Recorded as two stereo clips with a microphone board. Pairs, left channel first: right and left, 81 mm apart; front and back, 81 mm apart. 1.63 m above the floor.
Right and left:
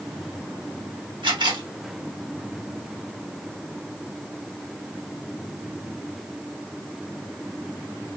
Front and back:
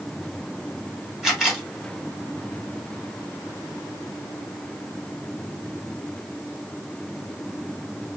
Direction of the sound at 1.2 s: 95° left.